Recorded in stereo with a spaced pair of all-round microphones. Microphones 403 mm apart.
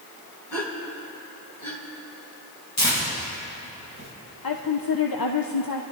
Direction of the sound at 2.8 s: 40° left (ahead or behind).